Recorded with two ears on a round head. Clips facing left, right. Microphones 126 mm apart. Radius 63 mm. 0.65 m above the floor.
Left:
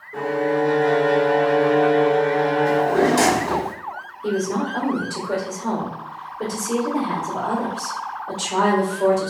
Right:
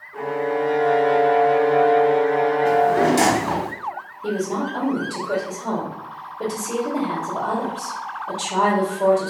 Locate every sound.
0.1 s a violin: 70° left (ahead or behind), 0.5 m
2.6 s a drawer: 15° right (ahead or behind), 1.2 m
4.2 s a woman speaking: 5° right (ahead or behind), 1.5 m